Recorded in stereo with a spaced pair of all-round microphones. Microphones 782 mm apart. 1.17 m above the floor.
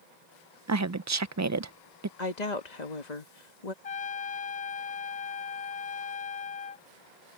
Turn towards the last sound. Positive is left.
turn(degrees=50)  # may be behind; listen again after turning